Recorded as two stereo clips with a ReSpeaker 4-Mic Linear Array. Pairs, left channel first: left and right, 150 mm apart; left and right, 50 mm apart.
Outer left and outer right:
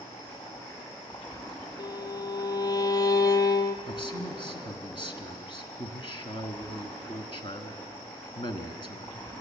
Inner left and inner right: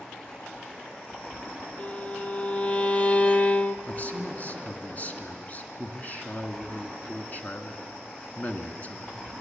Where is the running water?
35° left (ahead or behind), 7.5 m.